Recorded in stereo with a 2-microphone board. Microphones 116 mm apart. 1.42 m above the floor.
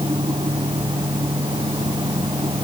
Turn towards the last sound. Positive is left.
No sound to turn to.